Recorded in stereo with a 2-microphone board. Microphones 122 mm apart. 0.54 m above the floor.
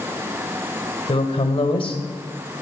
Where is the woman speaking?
45° left (ahead or behind), 2 m.